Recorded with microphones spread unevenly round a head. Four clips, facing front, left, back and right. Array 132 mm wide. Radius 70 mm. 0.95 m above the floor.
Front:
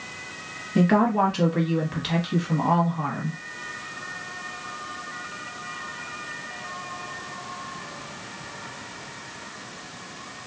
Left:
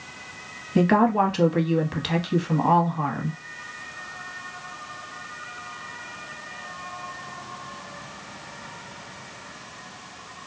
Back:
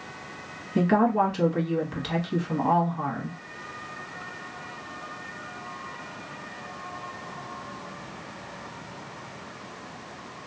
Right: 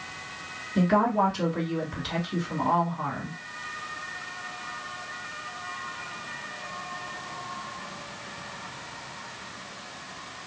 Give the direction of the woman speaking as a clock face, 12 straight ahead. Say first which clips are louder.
Left 4 dB, front 2 dB; 10 o'clock.